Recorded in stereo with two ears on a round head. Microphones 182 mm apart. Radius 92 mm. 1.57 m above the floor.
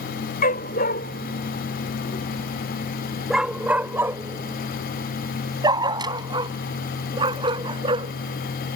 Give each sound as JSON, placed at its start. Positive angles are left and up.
{"t": 0.4, "sound": "a dog barking", "side_deg": 45}